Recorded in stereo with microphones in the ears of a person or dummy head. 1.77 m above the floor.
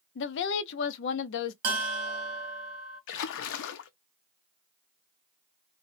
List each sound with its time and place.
0.1 s a woman speaking: 65° left (ahead or behind), 0.6 m
1.6 s a bell: 60° right (ahead or behind), 1.2 m
3.1 s a splash: 65° left (ahead or behind), 0.5 m